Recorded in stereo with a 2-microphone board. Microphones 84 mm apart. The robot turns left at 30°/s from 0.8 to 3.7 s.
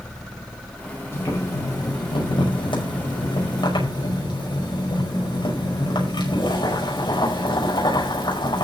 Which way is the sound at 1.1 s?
150° left.